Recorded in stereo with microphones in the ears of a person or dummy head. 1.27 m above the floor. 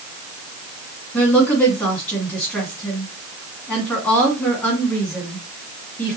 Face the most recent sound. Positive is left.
turn(degrees=15)  # may be behind; listen again after turning